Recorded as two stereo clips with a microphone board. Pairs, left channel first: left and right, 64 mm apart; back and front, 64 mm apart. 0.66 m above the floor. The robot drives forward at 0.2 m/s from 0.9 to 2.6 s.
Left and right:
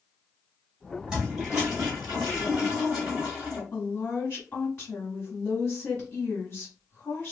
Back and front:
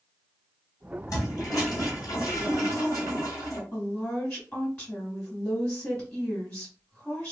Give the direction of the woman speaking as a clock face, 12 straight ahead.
7 o'clock.